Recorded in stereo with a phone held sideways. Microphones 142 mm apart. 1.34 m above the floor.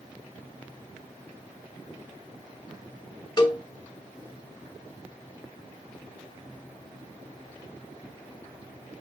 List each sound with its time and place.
3.4 s a cowbell: 35° left (ahead or behind), 1.4 m